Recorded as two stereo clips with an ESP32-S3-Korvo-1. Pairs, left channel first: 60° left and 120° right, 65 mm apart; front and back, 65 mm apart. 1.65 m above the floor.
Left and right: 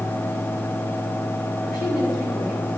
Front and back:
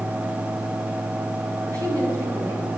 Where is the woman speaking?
170° left, 4 m.